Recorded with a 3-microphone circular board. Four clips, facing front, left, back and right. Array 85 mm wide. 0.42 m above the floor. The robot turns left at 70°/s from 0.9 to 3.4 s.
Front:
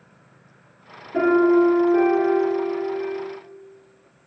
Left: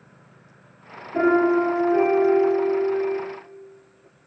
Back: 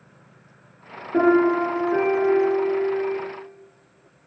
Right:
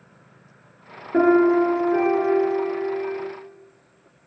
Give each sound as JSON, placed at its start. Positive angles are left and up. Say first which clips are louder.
{"t": 1.1, "sound": "a piano", "louder": "right 2 dB, front 1 dB", "azimuth_deg": -115, "distance_m": 5.0}